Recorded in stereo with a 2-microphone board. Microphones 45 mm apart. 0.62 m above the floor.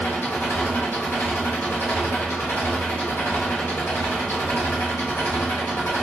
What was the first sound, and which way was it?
An engine running, 55° left (ahead or behind).